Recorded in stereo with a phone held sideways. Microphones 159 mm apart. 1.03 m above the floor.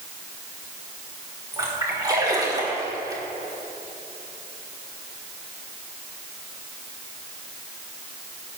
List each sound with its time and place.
1.5 s a splash: 25° right (ahead or behind), 1.6 m